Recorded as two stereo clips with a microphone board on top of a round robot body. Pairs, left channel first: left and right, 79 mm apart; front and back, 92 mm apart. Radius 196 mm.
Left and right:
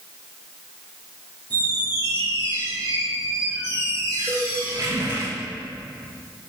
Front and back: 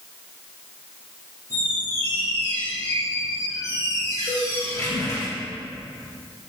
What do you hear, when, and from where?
1.5 s a squeak: 55° right, 5 m
4.3 s a cowbell: 15° right, 4.5 m